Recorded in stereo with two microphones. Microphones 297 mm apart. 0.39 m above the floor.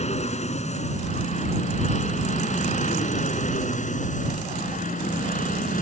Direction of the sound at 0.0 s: 20° left (ahead or behind).